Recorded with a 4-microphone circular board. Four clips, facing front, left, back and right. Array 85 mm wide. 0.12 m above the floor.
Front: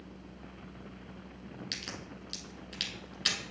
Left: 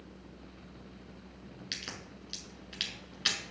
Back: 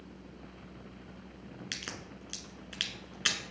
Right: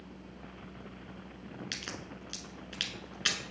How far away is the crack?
About 1.5 m.